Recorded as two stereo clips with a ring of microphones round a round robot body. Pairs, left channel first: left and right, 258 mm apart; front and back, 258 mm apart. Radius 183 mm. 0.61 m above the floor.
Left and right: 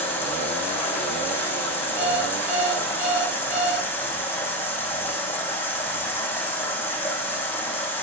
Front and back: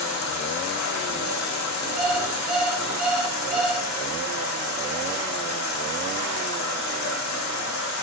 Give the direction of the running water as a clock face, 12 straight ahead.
12 o'clock.